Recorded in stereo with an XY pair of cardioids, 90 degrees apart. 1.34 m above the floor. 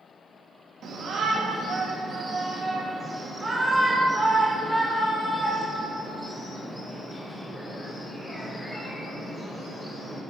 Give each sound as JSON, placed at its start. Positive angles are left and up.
{"t": 0.8, "sound": "a shout", "azimuth_deg": -65, "distance_m": 2.5}